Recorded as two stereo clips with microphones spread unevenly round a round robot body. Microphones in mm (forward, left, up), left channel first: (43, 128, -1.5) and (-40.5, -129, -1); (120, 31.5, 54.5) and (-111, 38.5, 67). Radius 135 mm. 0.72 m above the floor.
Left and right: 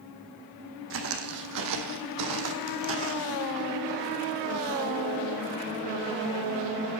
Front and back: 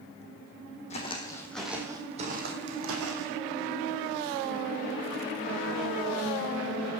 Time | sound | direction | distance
0.9 | footsteps | 65° right | 1.7 m